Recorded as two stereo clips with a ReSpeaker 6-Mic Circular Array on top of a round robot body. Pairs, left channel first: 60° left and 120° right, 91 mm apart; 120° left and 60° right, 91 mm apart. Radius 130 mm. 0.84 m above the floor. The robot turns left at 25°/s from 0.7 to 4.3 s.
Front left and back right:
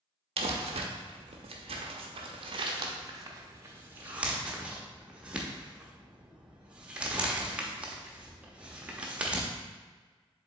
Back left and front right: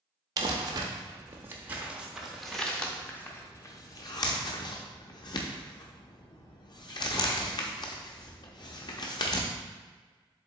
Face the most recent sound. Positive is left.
turn(degrees=165)